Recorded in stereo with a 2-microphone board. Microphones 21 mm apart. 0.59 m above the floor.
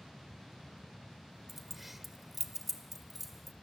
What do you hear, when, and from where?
1.5 s keys jangling: 10° right (ahead or behind), 1.5 m